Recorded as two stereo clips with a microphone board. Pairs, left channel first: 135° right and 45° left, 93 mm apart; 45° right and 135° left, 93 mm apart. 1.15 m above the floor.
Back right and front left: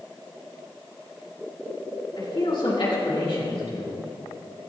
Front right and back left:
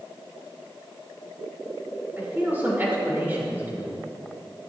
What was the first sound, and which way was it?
A man speaking, 160° right.